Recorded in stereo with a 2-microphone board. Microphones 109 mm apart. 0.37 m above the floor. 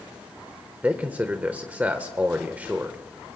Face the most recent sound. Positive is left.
turn(degrees=-15)  # may be behind; listen again after turning